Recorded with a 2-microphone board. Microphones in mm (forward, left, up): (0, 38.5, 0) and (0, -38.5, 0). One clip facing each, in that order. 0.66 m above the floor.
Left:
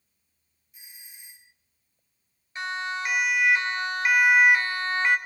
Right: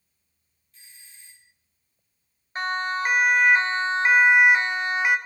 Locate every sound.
0.7 s a doorbell: 15° left (ahead or behind), 1.1 m
2.5 s a siren: 50° right (ahead or behind), 2.5 m; by 5.2 s 10° right (ahead or behind), 1.8 m